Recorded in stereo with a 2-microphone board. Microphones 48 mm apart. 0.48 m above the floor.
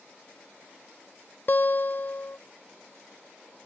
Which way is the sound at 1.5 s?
50° left (ahead or behind).